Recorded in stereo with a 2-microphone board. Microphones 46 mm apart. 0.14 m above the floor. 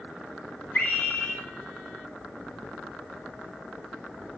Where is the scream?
40° left (ahead or behind), 3.5 m.